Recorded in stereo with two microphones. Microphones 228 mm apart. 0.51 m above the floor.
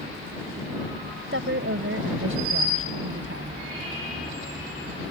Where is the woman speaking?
65° right (ahead or behind); by 3.6 s 70° right (ahead or behind).